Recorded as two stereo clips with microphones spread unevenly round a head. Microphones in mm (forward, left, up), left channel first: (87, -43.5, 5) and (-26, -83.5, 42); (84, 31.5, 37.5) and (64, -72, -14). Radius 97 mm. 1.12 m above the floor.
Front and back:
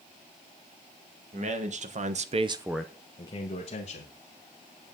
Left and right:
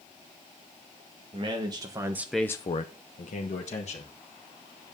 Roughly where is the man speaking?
Behind right.